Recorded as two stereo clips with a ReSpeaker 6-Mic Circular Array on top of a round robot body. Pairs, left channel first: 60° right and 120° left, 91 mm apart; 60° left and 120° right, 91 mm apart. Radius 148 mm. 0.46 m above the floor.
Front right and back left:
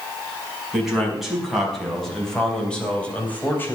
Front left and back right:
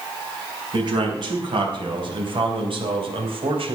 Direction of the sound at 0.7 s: 155° right.